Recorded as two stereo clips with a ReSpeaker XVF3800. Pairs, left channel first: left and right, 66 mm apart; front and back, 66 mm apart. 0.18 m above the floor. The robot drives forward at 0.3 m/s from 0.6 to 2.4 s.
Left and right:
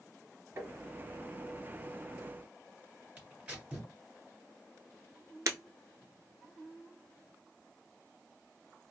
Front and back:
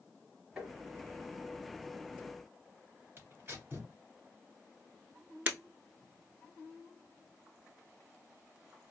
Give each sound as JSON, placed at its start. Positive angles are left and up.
{"t": 0.6, "sound": "tapping", "azimuth_deg": -110, "distance_m": 1.5}
{"t": 3.2, "sound": "tearing paper", "azimuth_deg": -155, "distance_m": 1.8}
{"t": 5.5, "sound": "breaking glass", "azimuth_deg": -120, "distance_m": 0.6}